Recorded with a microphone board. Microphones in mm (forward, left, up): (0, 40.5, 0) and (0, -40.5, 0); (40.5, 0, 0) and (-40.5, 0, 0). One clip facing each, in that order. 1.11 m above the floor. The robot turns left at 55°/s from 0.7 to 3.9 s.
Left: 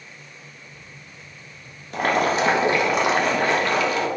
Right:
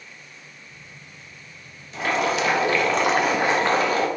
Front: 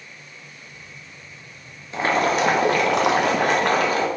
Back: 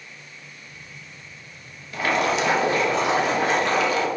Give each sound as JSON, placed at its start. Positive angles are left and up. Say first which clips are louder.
{"t": 1.9, "sound": "boiling", "louder": "left 3 dB, front 2 dB", "azimuth_deg": 65, "distance_m": 0.8}